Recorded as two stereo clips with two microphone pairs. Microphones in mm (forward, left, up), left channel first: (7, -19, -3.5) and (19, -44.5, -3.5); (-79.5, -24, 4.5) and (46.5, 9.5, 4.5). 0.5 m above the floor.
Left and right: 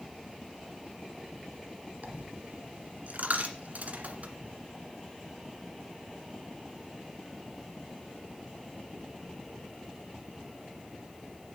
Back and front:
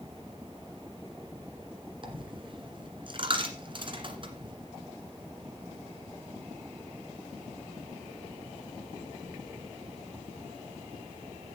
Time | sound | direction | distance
2.0 | a dropped coin | 35° right | 1.7 m